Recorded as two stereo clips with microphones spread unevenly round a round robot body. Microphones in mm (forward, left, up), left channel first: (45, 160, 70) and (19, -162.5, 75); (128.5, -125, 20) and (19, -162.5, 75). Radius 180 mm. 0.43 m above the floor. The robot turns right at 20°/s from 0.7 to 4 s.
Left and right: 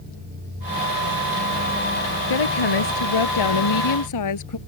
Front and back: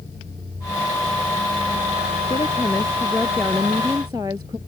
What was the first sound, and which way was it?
A woman speaking, 90° left.